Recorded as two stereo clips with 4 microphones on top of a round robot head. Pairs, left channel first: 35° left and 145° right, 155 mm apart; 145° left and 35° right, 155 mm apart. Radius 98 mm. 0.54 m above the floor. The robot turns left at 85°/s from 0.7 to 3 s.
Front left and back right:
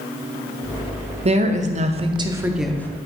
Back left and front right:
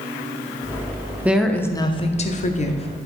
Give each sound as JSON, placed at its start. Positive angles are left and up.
{"t": 1.2, "sound": "a woman speaking", "azimuth_deg": -115, "distance_m": 0.8}